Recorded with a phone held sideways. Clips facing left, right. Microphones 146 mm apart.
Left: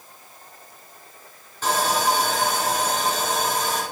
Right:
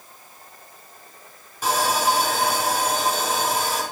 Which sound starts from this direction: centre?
Sawing, at 1.6 s.